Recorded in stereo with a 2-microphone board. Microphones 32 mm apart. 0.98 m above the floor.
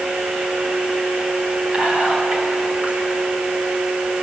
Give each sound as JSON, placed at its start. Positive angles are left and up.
{"t": 1.7, "sound": "whispering", "side_deg": -30, "distance_m": 6.0}